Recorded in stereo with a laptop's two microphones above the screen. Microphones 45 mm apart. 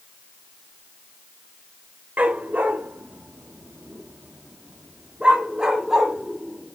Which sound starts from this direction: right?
A dog barking, at 2.2 s.